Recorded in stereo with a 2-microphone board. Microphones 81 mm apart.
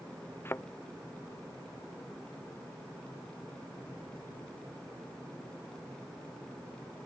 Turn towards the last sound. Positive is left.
turn(degrees=25)  # may be behind; listen again after turning